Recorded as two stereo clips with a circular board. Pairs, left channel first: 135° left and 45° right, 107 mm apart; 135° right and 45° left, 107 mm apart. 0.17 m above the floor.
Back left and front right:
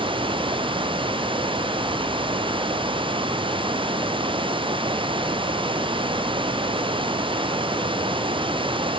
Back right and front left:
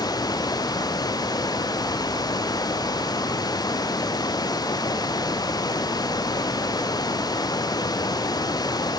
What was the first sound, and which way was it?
Running water, 85° right.